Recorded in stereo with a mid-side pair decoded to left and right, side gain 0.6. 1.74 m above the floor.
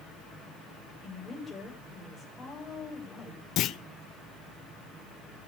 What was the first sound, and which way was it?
A woman speaking, 25° left.